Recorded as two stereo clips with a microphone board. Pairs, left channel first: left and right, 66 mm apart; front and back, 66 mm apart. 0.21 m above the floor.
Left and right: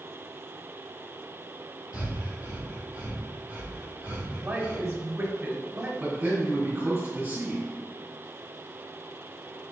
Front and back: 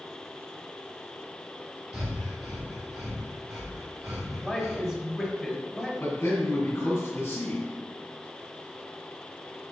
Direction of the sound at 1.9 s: 110° left.